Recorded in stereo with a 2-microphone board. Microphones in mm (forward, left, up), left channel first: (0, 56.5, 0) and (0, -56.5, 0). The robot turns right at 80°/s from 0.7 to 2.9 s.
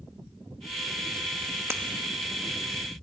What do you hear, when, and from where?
1.7 s breaking glass: 25° right (ahead or behind), 1.1 m